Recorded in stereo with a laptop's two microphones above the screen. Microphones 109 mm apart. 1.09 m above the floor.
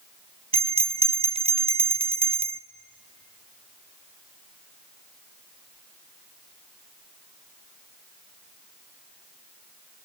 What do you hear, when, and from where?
0.5 s a bell: 60° right (ahead or behind), 0.6 m